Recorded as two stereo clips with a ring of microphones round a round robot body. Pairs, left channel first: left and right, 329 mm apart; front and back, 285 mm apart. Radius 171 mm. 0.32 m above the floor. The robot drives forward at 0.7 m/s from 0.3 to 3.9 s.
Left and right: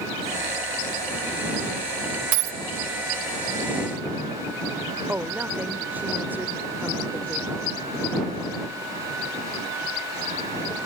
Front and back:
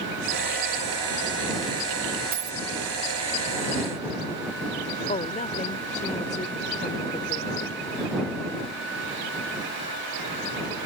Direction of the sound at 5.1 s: 10° right.